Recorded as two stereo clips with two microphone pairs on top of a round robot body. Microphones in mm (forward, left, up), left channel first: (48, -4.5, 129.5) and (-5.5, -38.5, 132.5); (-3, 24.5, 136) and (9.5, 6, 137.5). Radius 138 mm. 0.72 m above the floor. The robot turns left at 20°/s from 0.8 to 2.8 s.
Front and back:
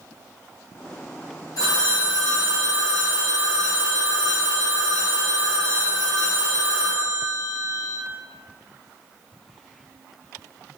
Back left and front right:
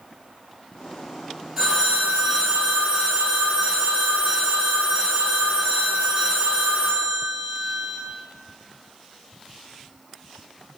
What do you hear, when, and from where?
1.6 s a phone ringing: 5° left, 1.7 m; by 8.0 s 15° right, 1.7 m